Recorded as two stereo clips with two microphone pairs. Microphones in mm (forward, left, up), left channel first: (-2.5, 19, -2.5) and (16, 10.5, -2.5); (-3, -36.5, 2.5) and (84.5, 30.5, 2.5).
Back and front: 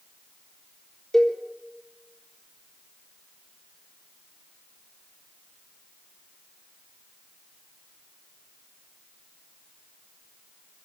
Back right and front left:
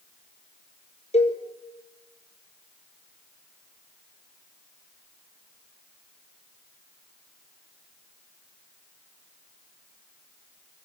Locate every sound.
1.1 s a cowbell: 135° right, 4 m